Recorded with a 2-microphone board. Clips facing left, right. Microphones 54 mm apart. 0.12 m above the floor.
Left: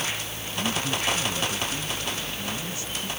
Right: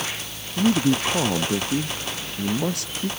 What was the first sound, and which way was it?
A man speaking, 70° right (ahead or behind).